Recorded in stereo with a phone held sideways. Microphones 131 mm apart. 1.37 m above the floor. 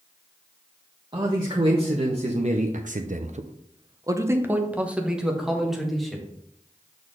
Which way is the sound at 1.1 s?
35° right (ahead or behind).